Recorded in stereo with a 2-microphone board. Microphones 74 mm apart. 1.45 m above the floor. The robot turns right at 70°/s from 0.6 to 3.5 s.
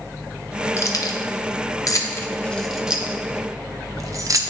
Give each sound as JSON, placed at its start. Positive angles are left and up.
{"t": 0.8, "sound": "keys jangling", "side_deg": 35, "distance_m": 0.6}